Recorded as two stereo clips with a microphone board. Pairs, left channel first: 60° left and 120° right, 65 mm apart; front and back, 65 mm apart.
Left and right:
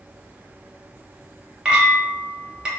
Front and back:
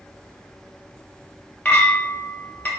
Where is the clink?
50° right, 0.8 m.